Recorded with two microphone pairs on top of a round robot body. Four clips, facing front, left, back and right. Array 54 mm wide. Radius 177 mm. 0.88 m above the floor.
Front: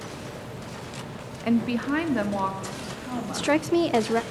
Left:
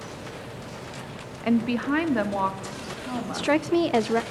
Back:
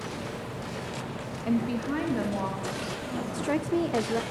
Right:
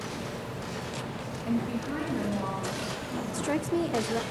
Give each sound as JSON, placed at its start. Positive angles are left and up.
{"t": 1.4, "sound": "a woman speaking", "azimuth_deg": 60, "distance_m": 1.6}
{"t": 3.3, "sound": "a woman speaking", "azimuth_deg": 45, "distance_m": 0.7}